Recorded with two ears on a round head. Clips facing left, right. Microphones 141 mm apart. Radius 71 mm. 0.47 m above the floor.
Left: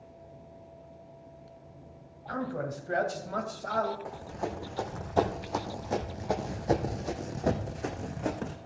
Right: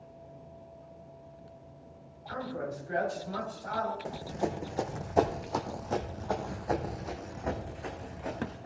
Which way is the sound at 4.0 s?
30° right (ahead or behind).